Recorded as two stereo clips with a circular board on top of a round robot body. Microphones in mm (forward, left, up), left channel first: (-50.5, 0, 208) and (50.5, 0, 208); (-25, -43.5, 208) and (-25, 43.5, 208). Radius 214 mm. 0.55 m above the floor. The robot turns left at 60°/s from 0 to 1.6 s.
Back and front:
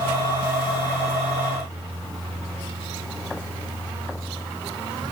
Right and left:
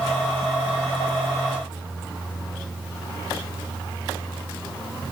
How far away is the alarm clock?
No alarm clock in this recording.